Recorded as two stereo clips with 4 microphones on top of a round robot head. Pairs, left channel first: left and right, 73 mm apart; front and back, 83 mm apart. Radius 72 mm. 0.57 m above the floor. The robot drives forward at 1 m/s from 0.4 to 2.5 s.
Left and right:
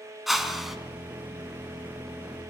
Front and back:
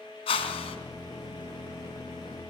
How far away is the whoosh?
About 3.5 m.